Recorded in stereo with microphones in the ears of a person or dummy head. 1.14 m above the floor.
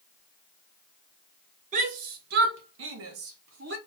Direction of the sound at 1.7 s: 45° right (ahead or behind).